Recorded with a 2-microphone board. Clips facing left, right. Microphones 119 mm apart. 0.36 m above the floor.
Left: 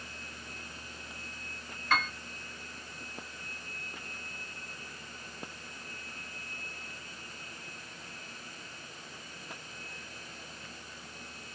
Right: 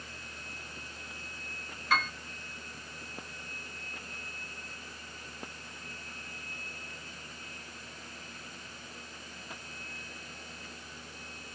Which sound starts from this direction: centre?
A piano, at 1.9 s.